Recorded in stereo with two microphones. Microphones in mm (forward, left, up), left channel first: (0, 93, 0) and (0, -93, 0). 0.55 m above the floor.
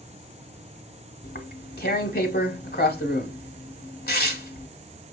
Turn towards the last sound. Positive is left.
turn(degrees=55)  # may be behind; listen again after turning